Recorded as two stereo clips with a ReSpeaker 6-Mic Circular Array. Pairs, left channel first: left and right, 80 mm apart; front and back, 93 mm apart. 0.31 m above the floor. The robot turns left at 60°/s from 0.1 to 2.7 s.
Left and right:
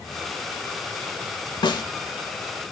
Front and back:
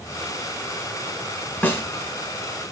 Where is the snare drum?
70° left, 0.6 m; by 1.8 s 60° left, 0.6 m.